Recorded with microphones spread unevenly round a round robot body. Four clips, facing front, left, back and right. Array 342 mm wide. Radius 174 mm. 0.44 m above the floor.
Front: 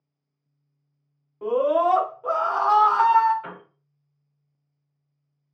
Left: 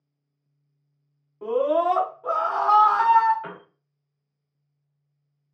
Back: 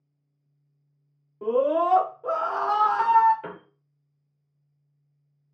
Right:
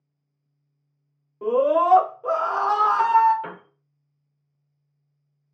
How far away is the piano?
About 0.7 m.